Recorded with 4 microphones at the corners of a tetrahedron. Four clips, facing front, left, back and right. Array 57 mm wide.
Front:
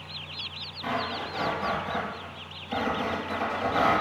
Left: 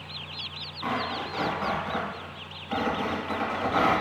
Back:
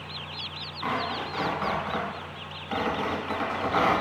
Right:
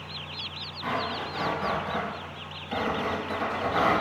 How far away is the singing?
I don't hear singing.